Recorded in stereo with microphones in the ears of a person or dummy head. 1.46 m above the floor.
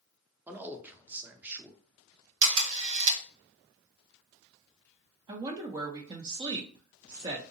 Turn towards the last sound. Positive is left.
turn(degrees=-25)  # may be behind; listen again after turning